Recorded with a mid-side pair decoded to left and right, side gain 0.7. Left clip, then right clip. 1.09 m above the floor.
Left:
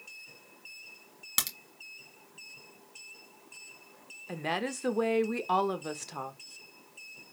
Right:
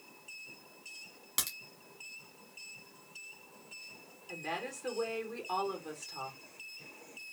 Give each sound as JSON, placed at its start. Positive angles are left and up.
{"t": 1.4, "sound": "a crack", "azimuth_deg": 35, "distance_m": 1.8}
{"t": 4.3, "sound": "a woman speaking", "azimuth_deg": 45, "distance_m": 0.9}